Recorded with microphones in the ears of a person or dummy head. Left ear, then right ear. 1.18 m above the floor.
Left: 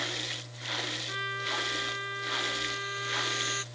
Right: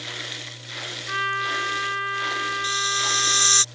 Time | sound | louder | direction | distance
1.1 | a trumpet | right 8 dB | 45° right (ahead or behind) | ?
2.6 | a hiss | right 10 dB | 90° right | ?